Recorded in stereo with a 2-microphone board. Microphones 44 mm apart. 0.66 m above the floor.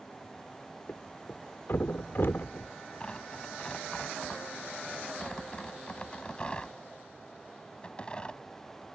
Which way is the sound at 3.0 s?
25° left (ahead or behind).